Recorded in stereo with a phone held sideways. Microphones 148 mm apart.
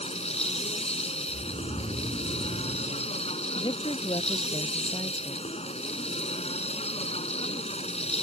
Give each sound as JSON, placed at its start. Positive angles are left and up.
{"t": 0.0, "sound": "a machine running", "side_deg": 45}
{"t": 1.3, "sound": "snoring", "side_deg": -35}
{"t": 3.5, "sound": "a woman speaking", "side_deg": 30}